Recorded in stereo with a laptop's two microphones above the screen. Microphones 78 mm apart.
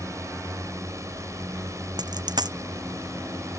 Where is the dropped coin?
65° right (ahead or behind).